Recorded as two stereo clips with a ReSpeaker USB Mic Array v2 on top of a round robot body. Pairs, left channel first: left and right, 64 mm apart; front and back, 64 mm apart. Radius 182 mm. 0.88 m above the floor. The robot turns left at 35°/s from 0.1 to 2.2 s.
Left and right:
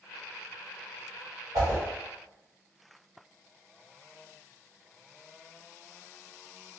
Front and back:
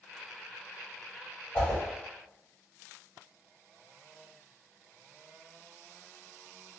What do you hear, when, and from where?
1.5 s a whoosh: 70° right, 1.2 m; by 1.8 s 80° right, 1.2 m